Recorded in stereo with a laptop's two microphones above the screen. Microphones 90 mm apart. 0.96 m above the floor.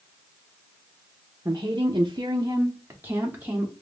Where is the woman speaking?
40° right (ahead or behind), 0.7 m; by 3.7 s 15° right (ahead or behind), 1.5 m.